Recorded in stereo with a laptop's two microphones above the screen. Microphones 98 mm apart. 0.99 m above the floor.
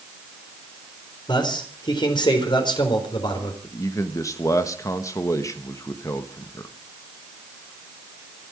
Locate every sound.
1.3 s a man speaking: 55° left (ahead or behind), 4.5 m
3.6 s a man speaking: 35° left (ahead or behind), 1.3 m